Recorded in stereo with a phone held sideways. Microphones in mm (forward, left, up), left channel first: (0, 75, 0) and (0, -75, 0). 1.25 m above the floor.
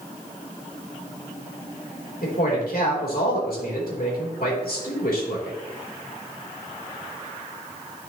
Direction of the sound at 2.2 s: 80° left.